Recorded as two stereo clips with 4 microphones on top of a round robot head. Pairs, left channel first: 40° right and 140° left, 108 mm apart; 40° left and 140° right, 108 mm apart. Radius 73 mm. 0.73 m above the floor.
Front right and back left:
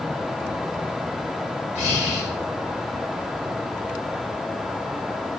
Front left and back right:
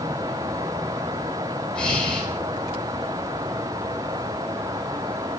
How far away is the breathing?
About 3.5 m.